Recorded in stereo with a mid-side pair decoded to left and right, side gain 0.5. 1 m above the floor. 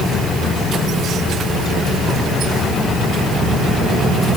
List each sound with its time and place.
Only background noise.